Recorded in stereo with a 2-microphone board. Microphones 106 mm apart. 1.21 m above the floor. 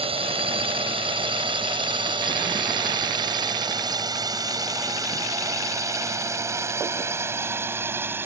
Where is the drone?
60° right (ahead or behind); by 8.3 s 20° right (ahead or behind).